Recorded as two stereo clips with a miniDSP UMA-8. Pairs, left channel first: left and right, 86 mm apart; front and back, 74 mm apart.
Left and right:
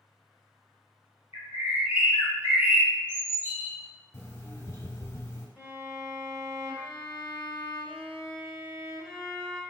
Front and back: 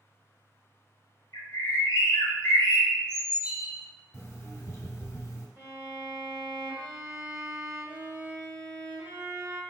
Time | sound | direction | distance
1.3 | a bird | 25° right | 1.1 m
4.1 | an alarm clock | 40° left | 0.6 m
5.6 | a violin | straight behind | 0.8 m